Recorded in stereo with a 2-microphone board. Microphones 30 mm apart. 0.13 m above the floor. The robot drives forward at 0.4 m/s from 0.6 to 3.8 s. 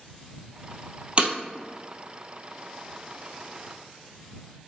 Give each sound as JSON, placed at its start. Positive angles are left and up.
{"t": 1.2, "sound": "breaking glass", "side_deg": -40, "distance_m": 1.1}